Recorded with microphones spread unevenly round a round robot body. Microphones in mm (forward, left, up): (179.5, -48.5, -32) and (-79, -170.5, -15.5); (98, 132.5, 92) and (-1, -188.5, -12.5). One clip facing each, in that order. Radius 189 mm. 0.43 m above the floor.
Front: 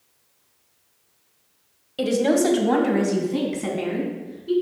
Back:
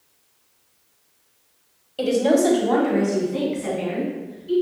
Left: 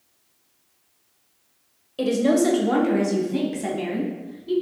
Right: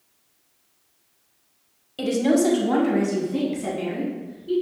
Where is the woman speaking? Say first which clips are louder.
Back 1 dB, even; 35° right, 1.8 m; by 4.5 s 5° left, 4 m.